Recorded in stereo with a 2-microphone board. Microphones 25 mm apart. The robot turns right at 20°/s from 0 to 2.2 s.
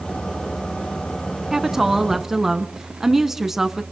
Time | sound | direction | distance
1.5 | a woman speaking | 15° right (ahead or behind) | 1.1 m